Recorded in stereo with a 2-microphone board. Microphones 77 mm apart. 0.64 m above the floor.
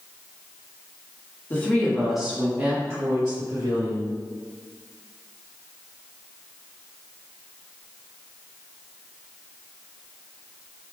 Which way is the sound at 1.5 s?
25° left (ahead or behind).